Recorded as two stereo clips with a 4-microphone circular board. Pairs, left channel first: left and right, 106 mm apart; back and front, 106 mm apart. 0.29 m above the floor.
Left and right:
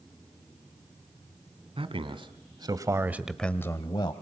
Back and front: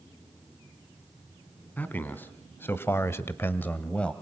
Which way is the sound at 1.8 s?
110° right.